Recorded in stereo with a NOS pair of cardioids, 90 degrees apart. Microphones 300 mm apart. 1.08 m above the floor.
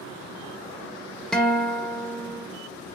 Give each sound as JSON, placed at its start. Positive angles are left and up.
{"t": 1.3, "sound": "a guitar", "azimuth_deg": 5, "distance_m": 0.5}